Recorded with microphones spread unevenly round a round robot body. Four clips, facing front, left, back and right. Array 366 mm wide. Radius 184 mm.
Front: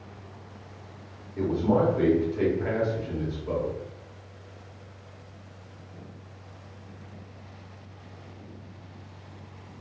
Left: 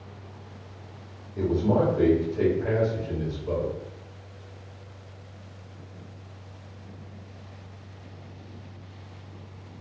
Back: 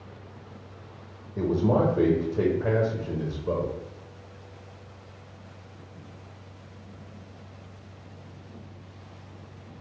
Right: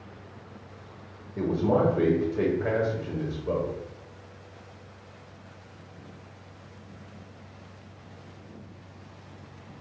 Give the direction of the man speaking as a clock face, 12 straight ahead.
5 o'clock.